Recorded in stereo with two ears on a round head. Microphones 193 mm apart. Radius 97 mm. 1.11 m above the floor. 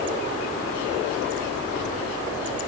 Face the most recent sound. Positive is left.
No sound to turn to.